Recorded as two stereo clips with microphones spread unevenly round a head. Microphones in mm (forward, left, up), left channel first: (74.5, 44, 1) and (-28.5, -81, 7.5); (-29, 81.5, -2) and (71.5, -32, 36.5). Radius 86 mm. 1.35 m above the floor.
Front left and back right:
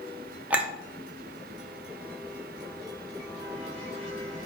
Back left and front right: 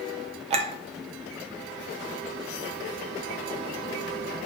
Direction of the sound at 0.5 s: 55° right.